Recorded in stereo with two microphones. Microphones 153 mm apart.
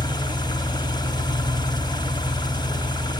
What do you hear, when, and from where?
0.0 s an engine running: 30° left (ahead or behind), 1.3 m